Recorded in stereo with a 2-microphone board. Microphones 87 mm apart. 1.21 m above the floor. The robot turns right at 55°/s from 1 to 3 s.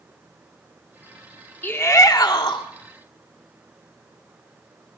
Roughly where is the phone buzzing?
No phone buzzing in this recording.